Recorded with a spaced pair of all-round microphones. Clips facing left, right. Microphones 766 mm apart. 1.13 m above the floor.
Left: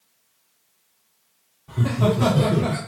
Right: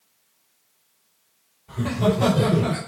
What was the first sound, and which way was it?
Laughter, 85° left.